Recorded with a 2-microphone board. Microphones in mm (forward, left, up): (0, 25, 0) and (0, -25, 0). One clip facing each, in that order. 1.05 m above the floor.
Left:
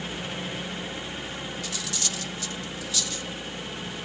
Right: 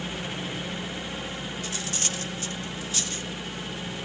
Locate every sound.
1.6 s cutlery clinking: 35° right (ahead or behind), 1.1 m